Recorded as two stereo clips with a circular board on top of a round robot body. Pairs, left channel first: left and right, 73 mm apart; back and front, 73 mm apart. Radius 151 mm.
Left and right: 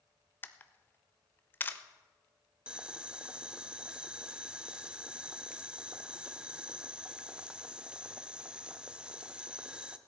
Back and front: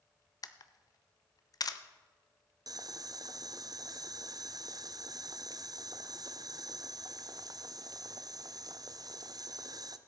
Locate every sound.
0.4 s a camera shutter: 150° left, 0.8 m
2.7 s boiling: 15° right, 0.7 m